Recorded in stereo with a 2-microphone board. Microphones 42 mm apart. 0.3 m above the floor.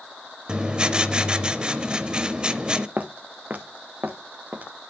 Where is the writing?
25° right (ahead or behind), 0.7 m.